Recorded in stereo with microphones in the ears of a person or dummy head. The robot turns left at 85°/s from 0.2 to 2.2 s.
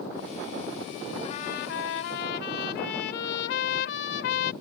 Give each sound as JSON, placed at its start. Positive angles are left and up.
{"t": 1.2, "sound": "a trumpet", "azimuth_deg": 155}